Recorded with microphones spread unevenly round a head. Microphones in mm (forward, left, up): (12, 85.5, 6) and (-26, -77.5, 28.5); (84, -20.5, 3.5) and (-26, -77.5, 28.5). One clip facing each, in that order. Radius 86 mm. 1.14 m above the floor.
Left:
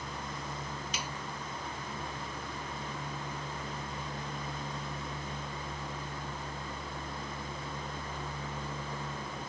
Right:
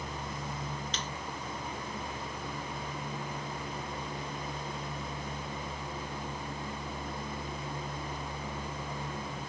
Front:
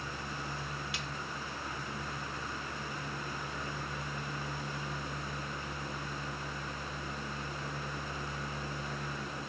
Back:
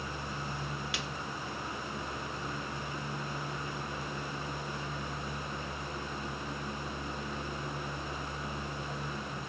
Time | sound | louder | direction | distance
0.9 | a snare drum | even, back 3 dB | 155° left | ?